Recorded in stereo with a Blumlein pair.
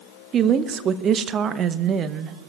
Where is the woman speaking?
25° right, 0.7 m.